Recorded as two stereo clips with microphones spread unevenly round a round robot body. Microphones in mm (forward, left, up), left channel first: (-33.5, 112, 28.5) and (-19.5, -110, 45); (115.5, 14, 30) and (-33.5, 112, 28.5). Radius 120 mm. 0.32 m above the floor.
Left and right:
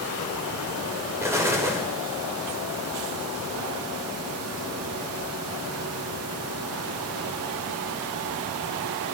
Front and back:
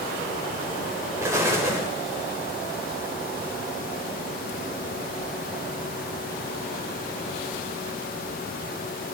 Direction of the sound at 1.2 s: 160° right.